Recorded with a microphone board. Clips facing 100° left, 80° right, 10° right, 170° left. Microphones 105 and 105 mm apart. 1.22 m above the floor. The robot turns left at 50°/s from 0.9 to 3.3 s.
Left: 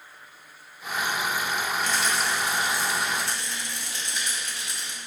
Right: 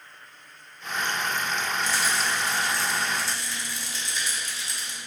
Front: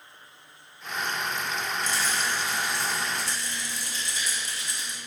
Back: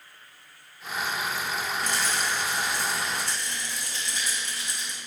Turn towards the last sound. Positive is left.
turn(degrees=135)